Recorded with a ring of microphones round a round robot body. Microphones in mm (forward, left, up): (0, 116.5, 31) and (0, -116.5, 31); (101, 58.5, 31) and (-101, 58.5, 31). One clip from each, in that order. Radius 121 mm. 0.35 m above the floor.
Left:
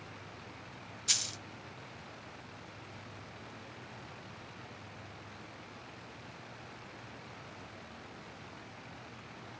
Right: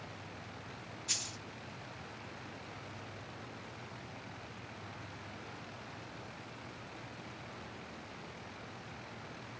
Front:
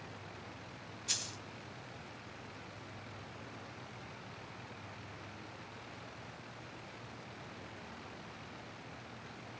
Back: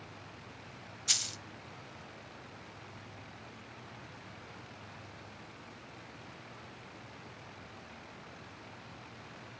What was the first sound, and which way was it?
A dropped coin, 140° left.